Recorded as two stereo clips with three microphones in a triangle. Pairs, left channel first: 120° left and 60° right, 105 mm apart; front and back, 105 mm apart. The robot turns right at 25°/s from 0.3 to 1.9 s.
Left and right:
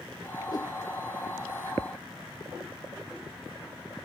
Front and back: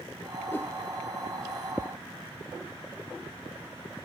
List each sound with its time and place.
0.5 s a whoosh: 70° left; by 0.7 s 75° left